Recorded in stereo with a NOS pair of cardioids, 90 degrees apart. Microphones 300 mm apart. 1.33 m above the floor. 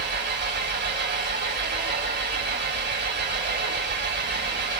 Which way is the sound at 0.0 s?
40° right.